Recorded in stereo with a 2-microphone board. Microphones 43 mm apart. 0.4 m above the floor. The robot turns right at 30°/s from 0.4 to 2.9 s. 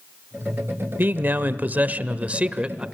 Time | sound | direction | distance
1.0 | a man speaking | 85° right | 1.0 m